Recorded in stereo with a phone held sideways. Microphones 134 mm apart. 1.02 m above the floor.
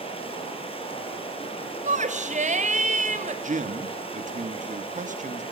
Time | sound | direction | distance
0.0 | running water | 40° left (ahead or behind) | 6.5 m
1.9 | a shout | 60° right (ahead or behind) | 3.5 m
3.4 | a man speaking | 65° right (ahead or behind) | 1.8 m